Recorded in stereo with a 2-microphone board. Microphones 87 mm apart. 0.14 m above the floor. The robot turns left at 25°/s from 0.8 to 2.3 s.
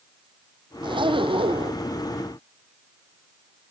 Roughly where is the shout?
No shout in this recording.